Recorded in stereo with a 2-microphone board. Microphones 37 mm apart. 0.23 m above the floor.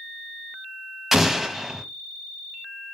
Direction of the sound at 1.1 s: 10° right (ahead or behind).